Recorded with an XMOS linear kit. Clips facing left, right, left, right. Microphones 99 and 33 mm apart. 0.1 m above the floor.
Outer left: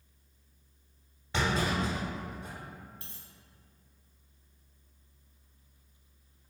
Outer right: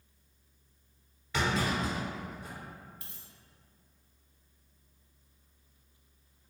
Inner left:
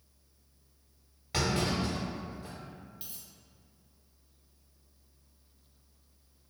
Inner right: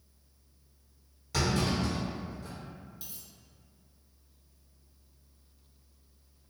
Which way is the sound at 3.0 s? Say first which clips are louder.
Outer left 1 dB, even; 35° left (ahead or behind).